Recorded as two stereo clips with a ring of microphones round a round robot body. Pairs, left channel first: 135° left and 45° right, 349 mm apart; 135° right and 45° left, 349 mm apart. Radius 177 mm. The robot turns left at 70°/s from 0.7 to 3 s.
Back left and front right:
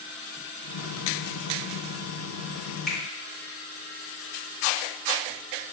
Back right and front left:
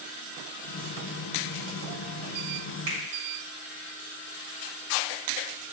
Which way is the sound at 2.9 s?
45° left.